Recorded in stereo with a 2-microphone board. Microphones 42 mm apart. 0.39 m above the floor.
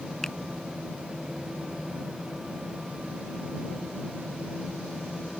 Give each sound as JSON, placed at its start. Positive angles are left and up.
{"t": 0.2, "sound": "a finger snap", "side_deg": 10}